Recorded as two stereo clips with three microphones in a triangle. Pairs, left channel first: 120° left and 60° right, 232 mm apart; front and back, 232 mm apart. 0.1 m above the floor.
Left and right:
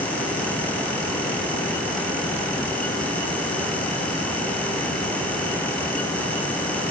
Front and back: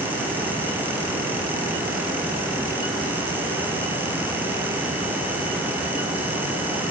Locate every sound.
Only background noise.